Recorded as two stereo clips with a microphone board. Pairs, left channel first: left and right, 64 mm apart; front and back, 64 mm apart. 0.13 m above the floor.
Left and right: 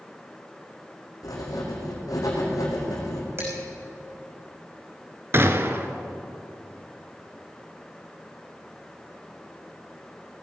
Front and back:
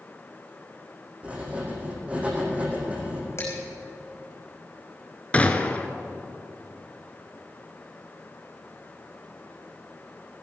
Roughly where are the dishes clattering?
Ahead right.